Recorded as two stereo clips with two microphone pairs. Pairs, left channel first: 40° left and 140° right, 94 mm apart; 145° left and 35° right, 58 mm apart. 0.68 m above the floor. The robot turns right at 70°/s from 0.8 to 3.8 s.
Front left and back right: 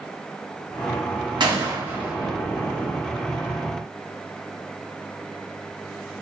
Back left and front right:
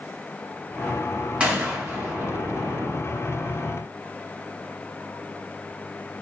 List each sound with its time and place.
1.4 s a gunshot: 105° right, 0.8 m; by 2.9 s 5° left, 0.8 m